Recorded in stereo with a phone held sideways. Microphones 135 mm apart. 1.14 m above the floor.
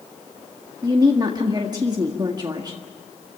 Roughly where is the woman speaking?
Right.